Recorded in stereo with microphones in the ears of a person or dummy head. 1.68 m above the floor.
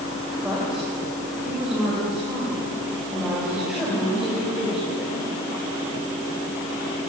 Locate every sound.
0.4 s a woman speaking: 5° right (ahead or behind), 7 m